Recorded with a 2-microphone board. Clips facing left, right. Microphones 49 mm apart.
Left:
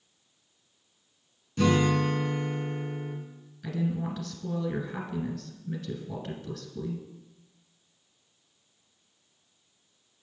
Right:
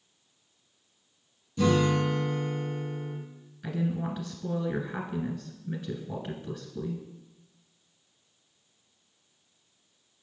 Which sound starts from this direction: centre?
A woman speaking, at 3.6 s.